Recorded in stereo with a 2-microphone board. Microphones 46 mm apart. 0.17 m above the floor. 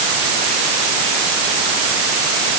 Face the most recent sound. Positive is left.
No sound to turn to.